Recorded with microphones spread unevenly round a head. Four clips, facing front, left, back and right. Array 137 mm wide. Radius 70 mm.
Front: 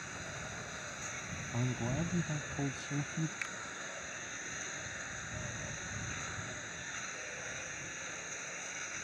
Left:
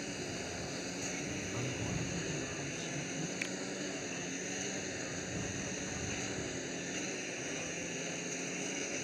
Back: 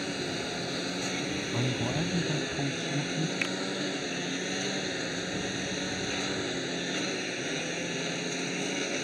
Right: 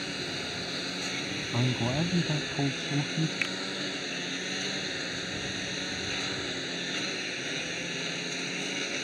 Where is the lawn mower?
165° right.